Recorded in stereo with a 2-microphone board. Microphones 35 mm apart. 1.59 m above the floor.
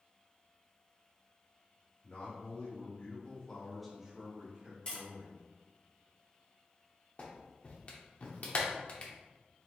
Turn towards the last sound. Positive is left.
turn(degrees=40)  # may be behind; listen again after turning